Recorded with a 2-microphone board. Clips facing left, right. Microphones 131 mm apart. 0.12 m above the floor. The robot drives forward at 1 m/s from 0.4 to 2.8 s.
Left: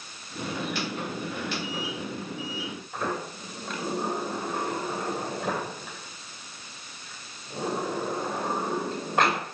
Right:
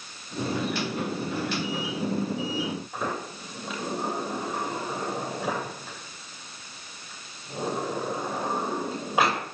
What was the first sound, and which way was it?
A sliding door, 5° right (ahead or behind).